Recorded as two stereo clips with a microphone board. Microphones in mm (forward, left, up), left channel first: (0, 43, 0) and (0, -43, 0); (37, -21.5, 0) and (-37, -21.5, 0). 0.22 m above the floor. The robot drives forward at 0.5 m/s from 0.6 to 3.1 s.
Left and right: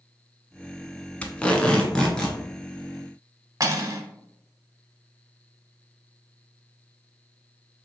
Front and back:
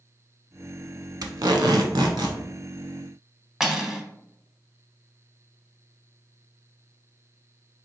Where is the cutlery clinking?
100° right, 0.7 m.